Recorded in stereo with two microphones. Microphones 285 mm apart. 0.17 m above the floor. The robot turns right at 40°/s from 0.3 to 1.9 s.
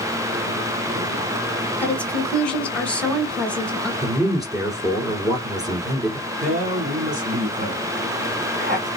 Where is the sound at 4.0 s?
10° right (ahead or behind), 2 m.